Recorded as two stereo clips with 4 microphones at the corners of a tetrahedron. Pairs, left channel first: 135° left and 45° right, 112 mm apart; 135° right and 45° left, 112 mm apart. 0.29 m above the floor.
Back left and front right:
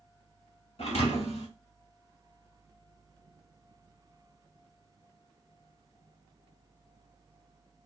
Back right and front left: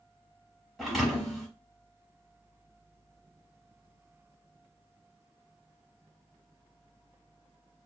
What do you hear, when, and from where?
0.8 s a thud: 135° left, 1.1 m